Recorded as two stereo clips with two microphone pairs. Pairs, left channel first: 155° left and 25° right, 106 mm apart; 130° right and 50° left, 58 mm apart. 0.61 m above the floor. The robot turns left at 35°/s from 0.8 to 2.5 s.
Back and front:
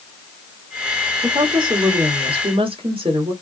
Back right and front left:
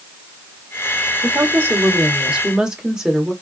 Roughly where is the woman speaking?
Ahead.